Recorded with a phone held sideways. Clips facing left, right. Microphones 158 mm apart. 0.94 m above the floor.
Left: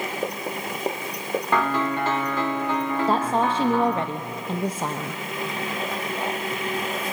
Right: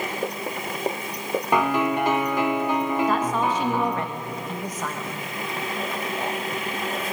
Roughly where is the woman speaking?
Left.